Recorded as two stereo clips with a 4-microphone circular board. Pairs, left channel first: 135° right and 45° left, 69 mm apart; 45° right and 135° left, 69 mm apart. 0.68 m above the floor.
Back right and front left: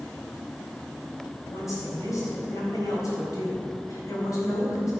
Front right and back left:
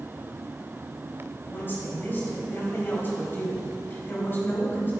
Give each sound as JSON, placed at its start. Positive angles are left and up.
{"t": 1.5, "sound": "a woman speaking", "azimuth_deg": -100, "distance_m": 4.0}